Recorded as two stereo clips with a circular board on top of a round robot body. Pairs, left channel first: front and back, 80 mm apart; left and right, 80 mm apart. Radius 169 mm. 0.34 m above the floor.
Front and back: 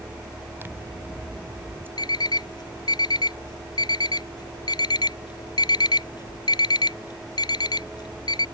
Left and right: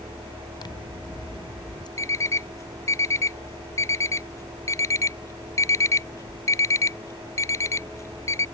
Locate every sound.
0.6 s scissors: 115° left
2.0 s an alarm clock: 35° left